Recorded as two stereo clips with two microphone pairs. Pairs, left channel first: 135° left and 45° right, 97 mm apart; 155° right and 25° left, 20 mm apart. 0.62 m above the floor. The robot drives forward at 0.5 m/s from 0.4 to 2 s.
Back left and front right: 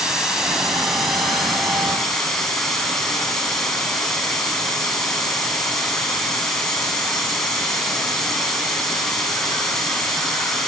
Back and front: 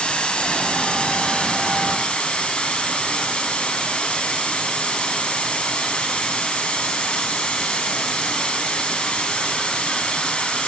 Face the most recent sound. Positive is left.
turn(degrees=-140)